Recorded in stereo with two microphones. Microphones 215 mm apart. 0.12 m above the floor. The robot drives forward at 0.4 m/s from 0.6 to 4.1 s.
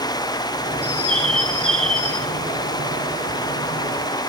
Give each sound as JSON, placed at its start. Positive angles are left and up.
{"t": 0.8, "sound": "a bird", "side_deg": -45, "distance_m": 0.7}